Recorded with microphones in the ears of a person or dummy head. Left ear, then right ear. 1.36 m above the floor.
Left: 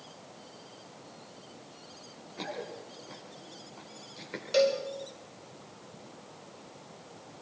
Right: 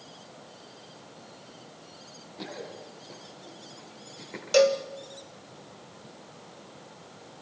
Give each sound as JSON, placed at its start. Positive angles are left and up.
{"t": 2.4, "sound": "running footsteps", "side_deg": 55, "distance_m": 6.0}
{"t": 4.5, "sound": "a cowbell", "side_deg": -35, "distance_m": 1.6}